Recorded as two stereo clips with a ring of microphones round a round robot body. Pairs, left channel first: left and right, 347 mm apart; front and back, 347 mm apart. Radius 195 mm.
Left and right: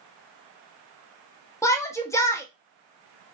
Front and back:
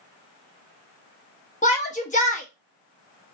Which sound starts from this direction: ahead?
A shout, at 1.6 s.